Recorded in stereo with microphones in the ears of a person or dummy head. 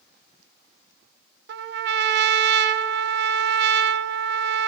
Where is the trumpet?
55° right (ahead or behind), 0.7 m.